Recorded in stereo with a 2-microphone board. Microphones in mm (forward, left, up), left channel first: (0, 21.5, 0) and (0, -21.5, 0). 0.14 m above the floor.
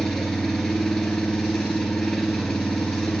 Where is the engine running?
10° left (ahead or behind), 1.1 m.